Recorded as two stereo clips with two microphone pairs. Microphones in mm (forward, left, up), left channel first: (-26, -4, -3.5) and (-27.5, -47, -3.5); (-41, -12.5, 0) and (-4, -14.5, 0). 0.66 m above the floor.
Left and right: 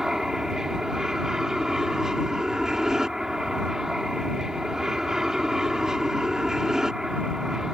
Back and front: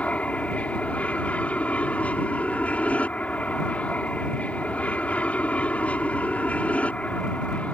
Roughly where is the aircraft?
Behind.